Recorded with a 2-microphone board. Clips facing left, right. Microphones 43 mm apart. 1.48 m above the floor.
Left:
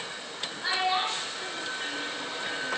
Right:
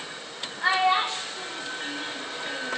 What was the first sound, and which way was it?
A child speaking, 80° right.